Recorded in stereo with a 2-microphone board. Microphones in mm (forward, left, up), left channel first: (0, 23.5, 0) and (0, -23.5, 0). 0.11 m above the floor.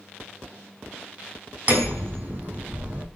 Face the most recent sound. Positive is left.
turn(degrees=-40)  # may be behind; listen again after turning